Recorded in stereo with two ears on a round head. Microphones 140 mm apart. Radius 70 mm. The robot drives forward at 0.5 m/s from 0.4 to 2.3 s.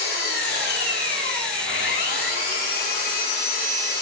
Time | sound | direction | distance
0.0 | an engine running | 75° left (ahead or behind) | 4.5 m